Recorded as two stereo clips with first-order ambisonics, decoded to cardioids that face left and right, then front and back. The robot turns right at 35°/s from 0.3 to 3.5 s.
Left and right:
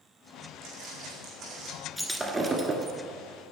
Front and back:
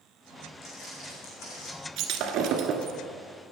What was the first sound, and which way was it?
Footsteps, 60° right.